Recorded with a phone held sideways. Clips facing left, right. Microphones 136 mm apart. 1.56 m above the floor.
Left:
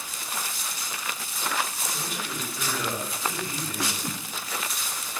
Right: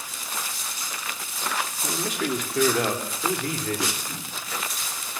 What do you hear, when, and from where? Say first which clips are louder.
1.8 s a man speaking: right 7 dB; 80° right, 3 m; by 3.9 s 85° right, 4.5 m
4.0 s a whoosh: left 3 dB; 75° left (ahead or behind), 5.5 m